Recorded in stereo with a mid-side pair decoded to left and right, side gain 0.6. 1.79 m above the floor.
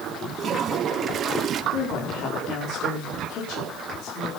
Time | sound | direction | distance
0.4 | a toilet flushing | 40° right | 1.4 m
1.7 | a woman speaking | 60° left | 5 m